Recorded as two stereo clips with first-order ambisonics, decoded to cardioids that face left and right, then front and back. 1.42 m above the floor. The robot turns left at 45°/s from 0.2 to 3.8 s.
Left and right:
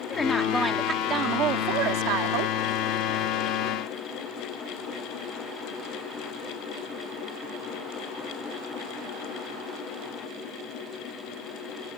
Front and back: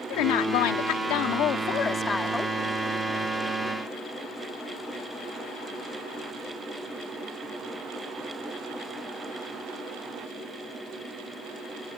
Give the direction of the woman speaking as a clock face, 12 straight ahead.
12 o'clock.